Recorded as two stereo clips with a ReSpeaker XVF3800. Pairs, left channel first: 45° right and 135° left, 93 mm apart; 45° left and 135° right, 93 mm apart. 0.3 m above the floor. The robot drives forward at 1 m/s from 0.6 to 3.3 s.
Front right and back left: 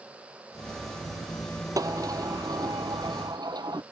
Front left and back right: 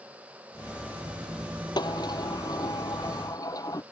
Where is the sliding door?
85° left; by 3.8 s 90° left.